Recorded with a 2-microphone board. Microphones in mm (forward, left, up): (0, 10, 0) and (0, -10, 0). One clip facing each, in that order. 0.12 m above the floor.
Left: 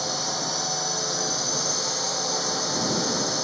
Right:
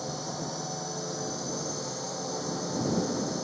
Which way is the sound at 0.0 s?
60° left (ahead or behind).